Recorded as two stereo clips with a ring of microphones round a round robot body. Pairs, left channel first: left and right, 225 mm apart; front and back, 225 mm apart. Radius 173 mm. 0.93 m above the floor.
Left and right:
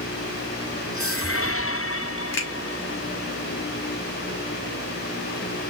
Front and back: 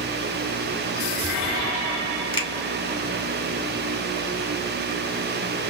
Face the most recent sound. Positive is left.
turn(degrees=70)